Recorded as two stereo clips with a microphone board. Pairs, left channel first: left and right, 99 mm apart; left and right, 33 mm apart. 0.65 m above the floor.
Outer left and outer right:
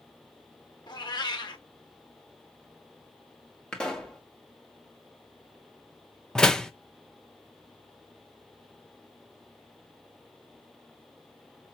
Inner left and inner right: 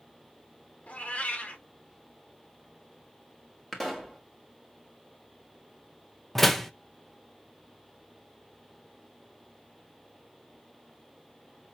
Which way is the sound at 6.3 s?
5° left (ahead or behind).